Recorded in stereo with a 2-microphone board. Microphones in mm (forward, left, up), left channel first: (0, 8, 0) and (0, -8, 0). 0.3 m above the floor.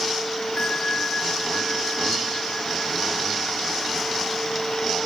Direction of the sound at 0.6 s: 55° left (ahead or behind).